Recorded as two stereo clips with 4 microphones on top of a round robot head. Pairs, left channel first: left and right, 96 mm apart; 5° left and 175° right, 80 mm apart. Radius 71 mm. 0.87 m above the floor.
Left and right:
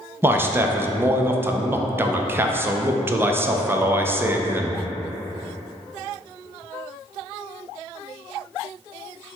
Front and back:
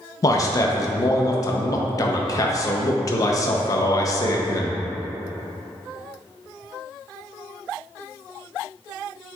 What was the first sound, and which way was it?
A man speaking, 30° right.